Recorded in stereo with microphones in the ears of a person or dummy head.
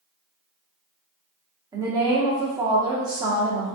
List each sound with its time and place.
1.7 s a woman speaking: 15° right (ahead or behind), 0.9 m